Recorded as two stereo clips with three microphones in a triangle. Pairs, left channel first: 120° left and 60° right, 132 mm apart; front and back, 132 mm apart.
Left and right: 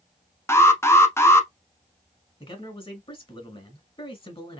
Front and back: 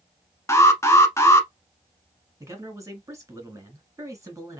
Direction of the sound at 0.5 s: 60° left.